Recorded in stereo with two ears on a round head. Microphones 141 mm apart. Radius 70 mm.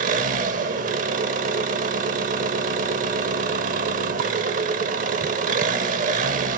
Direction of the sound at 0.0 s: 55° right (ahead or behind).